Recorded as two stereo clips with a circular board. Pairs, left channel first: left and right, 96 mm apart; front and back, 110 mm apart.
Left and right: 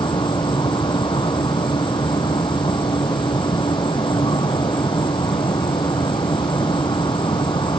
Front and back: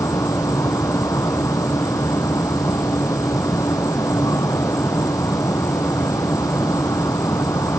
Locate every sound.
0.0 s an insect: 60° left